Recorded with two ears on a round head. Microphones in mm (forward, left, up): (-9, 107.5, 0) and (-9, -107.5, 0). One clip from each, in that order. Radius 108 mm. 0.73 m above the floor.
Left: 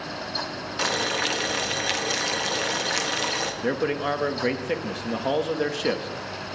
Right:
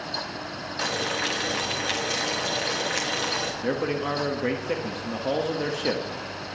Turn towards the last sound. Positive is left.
turn(degrees=15)  # may be behind; listen again after turning